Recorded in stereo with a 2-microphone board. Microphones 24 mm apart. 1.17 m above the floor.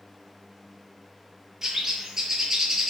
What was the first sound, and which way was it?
A bird, 20° right (ahead or behind).